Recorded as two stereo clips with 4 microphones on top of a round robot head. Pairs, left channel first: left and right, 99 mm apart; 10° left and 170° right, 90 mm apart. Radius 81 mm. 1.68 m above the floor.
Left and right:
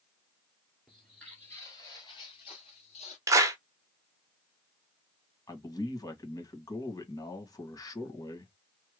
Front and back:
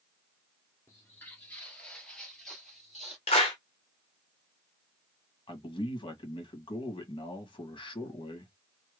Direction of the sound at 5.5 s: 40° left.